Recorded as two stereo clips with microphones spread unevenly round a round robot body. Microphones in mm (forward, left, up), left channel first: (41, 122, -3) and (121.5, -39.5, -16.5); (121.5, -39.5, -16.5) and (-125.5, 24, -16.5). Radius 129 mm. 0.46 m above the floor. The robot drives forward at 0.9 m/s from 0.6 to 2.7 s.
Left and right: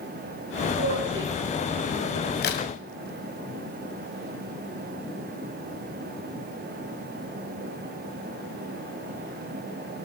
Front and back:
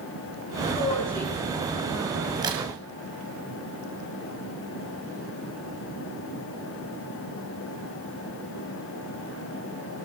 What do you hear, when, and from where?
0.7 s a woman speaking: 85° right, 3.5 m; by 2.2 s 105° right, 3.5 m
2.4 s a crack: 90° left, 2 m; by 2.6 s 95° left, 2 m